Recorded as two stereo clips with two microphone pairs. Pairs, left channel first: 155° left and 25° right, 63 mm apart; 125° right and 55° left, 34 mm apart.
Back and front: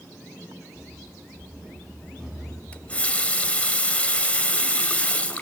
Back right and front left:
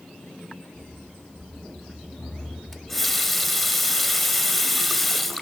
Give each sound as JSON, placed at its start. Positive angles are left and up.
{"t": 0.7, "sound": "running footsteps", "azimuth_deg": -125, "distance_m": 8.0}
{"t": 2.7, "sound": "a running tap", "azimuth_deg": 145, "distance_m": 0.7}